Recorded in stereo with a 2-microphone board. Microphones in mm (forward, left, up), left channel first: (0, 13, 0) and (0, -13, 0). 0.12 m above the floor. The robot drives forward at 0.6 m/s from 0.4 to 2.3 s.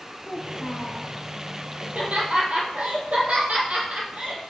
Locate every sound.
0.2 s a child speaking: 40° left (ahead or behind), 4 m; by 1.1 s 35° left (ahead or behind), 4.5 m
1.8 s laughter: 60° right (ahead or behind), 4 m